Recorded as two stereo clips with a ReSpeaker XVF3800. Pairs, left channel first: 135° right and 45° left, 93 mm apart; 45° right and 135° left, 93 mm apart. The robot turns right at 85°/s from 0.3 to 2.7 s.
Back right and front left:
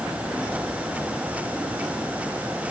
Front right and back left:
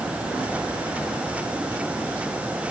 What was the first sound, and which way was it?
Only background noise.